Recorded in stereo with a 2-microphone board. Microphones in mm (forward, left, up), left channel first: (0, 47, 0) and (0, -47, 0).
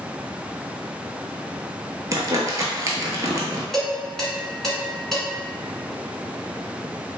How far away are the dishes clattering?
About 1.1 m.